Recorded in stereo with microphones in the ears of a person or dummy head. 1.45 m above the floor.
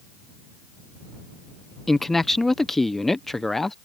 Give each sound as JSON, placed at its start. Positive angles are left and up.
{"t": 1.9, "sound": "a man speaking", "side_deg": 5}